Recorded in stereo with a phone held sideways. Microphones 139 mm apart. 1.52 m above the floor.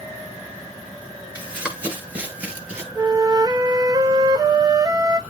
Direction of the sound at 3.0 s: 30° right (ahead or behind).